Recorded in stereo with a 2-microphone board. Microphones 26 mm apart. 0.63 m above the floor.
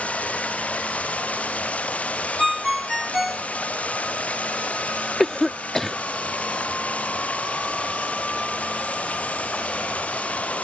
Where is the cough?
15° left (ahead or behind).